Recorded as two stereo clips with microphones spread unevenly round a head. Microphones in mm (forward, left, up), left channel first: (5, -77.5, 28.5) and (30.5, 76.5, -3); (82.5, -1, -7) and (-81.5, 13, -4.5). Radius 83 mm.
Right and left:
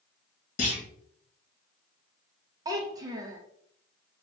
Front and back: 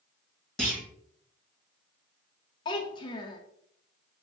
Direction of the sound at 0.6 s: 95° right.